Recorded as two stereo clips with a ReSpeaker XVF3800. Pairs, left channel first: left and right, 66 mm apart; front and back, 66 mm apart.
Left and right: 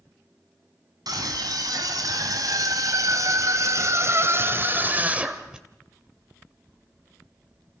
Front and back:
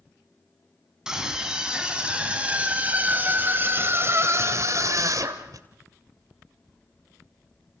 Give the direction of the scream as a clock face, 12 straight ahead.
3 o'clock.